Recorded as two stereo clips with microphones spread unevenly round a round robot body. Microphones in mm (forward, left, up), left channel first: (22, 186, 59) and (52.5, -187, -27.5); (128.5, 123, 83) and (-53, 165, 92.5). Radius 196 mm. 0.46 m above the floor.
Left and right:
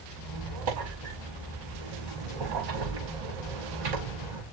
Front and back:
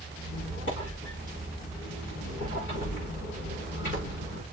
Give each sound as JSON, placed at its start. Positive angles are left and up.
{"t": 0.2, "sound": "a squeak", "azimuth_deg": -55, "distance_m": 5.5}